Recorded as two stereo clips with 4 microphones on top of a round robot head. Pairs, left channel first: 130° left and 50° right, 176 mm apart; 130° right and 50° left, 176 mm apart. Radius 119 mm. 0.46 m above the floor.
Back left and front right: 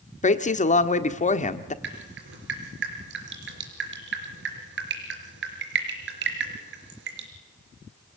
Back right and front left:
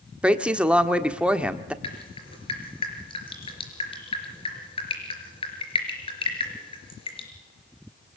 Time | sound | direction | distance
0.2 | a woman speaking | 135° left | 1.5 m
1.8 | dripping | 65° right | 4.5 m